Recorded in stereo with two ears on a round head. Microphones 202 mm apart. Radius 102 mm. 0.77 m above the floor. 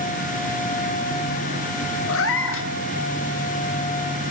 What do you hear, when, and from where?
2.1 s a cat meowing: 65° left (ahead or behind), 0.7 m